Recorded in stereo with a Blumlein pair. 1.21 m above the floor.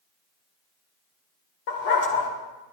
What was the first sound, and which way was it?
A dog barking, 50° left.